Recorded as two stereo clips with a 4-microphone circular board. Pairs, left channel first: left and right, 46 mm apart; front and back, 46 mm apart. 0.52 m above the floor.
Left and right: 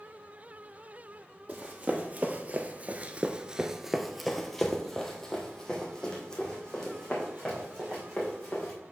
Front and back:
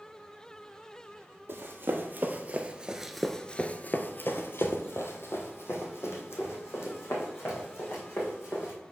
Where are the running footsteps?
145° right, 1.1 m; by 8.7 s 20° left, 3 m.